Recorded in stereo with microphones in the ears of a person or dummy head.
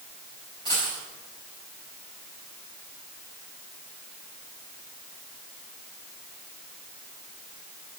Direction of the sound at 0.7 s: 25° left (ahead or behind).